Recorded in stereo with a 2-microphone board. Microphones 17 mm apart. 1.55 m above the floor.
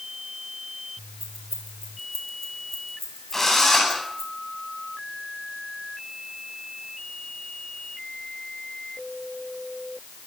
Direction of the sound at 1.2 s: 20° left (ahead or behind).